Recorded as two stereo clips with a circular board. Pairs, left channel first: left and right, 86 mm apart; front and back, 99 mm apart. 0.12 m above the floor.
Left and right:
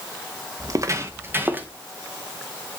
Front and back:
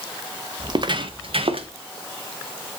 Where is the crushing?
I don't hear crushing.